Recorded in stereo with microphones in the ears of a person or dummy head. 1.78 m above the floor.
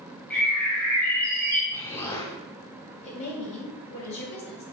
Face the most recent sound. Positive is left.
turn(degrees=40)  # may be behind; listen again after turning